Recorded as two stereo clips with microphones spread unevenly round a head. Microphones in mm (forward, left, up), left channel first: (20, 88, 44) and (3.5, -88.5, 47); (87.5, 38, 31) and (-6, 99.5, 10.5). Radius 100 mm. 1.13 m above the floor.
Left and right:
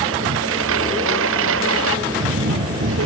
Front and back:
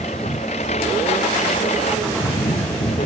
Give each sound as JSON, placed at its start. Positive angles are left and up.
{"t": 0.0, "sound": "a lawn mower", "azimuth_deg": -95}